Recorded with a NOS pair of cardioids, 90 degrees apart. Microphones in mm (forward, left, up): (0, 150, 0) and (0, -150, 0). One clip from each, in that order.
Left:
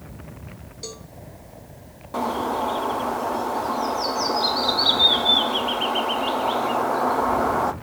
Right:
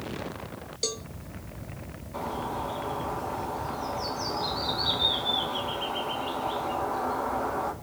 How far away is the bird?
About 1.5 m.